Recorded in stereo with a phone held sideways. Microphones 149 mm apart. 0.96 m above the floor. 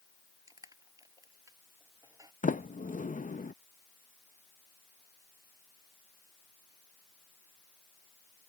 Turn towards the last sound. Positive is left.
turn(degrees=65)  # may be behind; listen again after turning